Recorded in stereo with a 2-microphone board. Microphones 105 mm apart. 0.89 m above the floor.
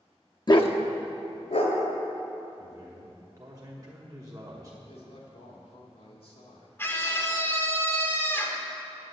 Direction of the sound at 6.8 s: 20° left (ahead or behind).